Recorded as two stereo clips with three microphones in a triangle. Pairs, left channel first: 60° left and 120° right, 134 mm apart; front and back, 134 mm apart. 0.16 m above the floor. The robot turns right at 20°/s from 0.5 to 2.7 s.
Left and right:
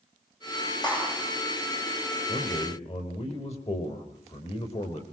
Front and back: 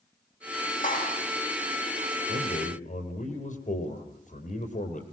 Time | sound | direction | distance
0.8 | a clap | 5° left | 9.5 m
2.3 | a man speaking | 15° left | 5.5 m